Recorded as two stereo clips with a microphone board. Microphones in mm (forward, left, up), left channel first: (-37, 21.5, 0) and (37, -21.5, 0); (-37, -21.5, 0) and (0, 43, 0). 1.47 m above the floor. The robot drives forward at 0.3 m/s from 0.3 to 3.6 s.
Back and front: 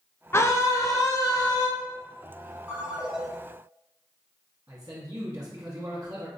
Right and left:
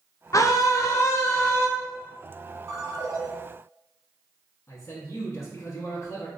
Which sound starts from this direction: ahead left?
A ringtone, at 2.7 s.